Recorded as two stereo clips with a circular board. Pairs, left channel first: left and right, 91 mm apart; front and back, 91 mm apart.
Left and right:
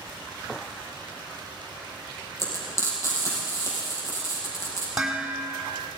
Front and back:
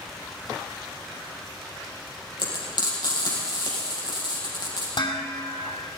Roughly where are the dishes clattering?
Ahead.